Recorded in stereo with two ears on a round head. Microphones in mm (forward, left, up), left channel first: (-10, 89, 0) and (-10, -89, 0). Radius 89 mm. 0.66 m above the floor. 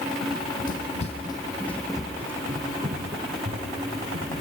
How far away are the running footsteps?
About 2 m.